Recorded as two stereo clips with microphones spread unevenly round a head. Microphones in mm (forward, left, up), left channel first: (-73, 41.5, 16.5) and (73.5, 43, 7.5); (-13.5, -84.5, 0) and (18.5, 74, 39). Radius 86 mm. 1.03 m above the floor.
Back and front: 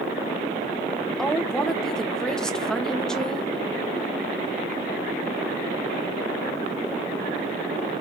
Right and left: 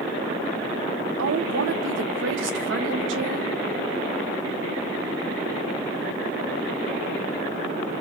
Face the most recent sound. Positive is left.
turn(degrees=95)